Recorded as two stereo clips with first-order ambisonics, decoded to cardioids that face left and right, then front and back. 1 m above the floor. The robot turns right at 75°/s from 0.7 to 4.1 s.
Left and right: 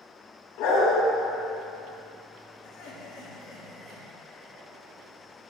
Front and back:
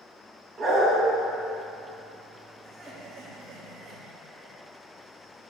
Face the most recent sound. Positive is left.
turn(degrees=-170)